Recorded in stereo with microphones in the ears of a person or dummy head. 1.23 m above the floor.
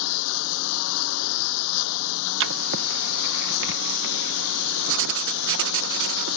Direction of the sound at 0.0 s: 80° left.